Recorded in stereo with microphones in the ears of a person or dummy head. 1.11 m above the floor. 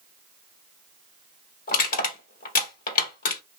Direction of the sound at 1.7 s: 45° left (ahead or behind).